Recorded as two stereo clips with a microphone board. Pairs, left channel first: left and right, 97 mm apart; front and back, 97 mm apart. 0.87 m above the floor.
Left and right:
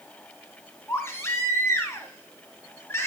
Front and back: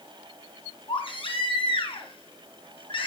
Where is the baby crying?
25° left, 2.5 m.